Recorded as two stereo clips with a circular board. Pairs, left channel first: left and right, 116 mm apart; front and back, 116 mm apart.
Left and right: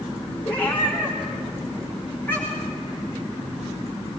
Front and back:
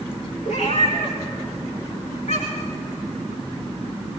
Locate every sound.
0.5 s a cat meowing: 15° left, 5.5 m